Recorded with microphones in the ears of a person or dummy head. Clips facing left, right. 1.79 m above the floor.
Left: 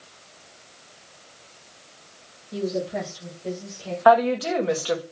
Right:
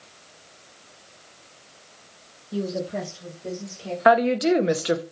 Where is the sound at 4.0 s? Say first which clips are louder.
Even; 35° right (ahead or behind), 0.7 m.